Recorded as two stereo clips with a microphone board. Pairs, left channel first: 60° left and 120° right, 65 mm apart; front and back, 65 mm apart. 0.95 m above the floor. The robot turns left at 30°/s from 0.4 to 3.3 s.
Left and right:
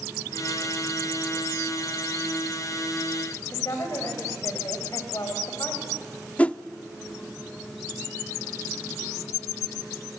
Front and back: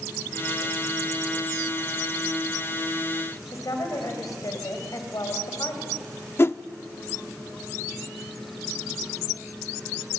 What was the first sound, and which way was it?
A woman speaking, 25° left.